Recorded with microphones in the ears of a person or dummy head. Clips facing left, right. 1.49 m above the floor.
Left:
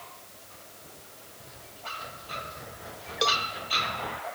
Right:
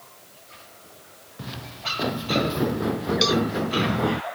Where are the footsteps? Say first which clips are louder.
Right 11 dB; 80° right; by 4.2 s 60° right (ahead or behind).